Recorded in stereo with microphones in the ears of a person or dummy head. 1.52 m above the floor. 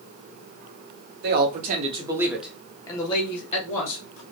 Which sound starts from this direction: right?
A man speaking, at 1.2 s.